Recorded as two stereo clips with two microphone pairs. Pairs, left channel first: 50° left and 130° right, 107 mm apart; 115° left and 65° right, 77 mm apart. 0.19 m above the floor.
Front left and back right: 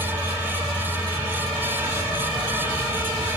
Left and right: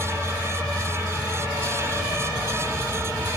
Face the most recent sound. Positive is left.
turn(degrees=-170)